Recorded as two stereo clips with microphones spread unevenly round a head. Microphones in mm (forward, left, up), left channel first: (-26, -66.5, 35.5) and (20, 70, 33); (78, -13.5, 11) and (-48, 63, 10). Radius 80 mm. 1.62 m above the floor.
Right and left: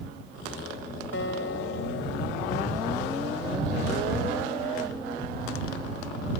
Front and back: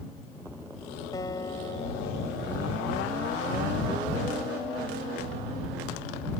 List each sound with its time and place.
1.1 s a guitar: 100° right